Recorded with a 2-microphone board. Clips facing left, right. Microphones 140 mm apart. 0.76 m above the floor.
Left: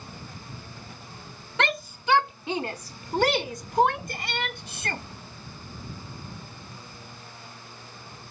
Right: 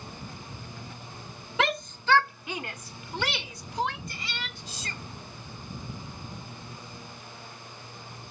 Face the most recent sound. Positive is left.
turn(degrees=65)  # may be behind; listen again after turning